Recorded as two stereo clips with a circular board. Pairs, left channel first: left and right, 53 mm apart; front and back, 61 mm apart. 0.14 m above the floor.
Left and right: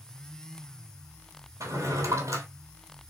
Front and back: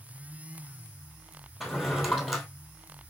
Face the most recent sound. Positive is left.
turn(degrees=-90)